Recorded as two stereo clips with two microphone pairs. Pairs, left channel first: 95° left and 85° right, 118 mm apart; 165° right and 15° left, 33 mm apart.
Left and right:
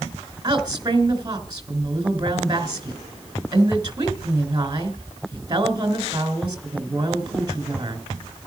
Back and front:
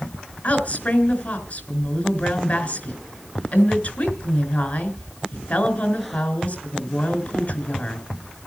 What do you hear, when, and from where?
0.4 s a woman speaking: 140° right, 3.5 m